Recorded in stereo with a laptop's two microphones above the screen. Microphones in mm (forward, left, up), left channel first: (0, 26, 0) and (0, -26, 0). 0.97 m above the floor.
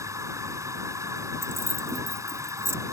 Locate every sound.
0.0 s a machine running: 75° right (ahead or behind)
1.4 s keys jangling: 60° right (ahead or behind)